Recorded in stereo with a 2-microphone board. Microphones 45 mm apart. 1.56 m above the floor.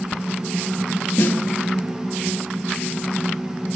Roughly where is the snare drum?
Left.